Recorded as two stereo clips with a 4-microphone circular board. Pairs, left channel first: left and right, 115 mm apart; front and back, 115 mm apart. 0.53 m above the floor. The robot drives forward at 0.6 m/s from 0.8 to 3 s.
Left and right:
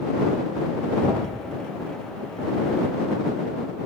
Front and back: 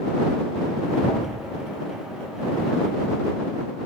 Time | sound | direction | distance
1.0 | a thud | 40° right | 4 m